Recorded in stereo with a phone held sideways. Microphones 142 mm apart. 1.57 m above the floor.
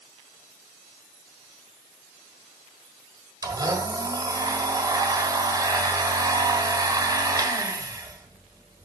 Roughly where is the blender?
Right.